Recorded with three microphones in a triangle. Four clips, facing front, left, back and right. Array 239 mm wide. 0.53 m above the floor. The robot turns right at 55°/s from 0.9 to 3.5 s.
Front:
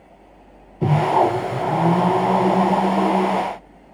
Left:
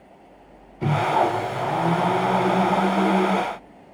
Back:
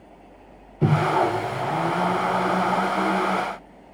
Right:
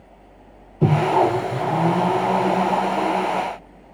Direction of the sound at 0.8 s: 90° right.